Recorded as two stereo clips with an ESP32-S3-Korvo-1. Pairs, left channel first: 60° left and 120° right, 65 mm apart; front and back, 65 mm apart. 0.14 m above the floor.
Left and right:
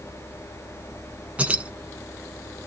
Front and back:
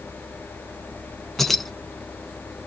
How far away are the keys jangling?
About 0.7 m.